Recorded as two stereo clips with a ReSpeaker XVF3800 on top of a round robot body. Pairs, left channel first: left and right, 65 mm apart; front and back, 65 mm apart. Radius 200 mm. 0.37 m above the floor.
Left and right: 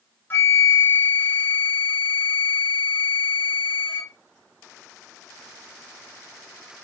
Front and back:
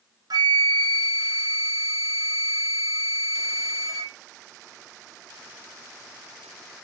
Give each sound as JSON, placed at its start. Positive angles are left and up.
{"t": 0.3, "sound": "a flute", "azimuth_deg": 150, "distance_m": 0.5}